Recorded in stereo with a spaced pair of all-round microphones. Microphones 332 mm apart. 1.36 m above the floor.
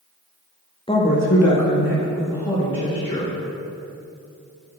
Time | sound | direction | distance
0.9 | a woman speaking | 15° left (ahead or behind) | 1.1 m